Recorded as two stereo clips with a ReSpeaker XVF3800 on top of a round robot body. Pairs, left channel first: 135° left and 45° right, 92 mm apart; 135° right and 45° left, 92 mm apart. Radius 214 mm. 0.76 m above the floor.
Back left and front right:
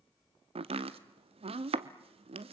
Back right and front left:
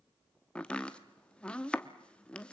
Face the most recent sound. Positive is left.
turn(degrees=-55)